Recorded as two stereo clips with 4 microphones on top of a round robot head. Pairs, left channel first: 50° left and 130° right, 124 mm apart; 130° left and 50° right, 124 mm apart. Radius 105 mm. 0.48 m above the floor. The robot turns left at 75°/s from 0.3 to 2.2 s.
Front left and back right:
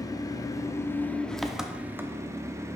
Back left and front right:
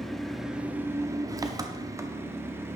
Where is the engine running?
45° left, 0.8 m; by 2.8 s 95° right, 0.8 m.